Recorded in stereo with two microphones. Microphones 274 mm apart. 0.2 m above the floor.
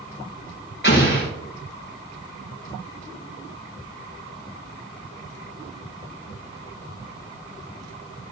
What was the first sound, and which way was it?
An explosion, 40° left (ahead or behind).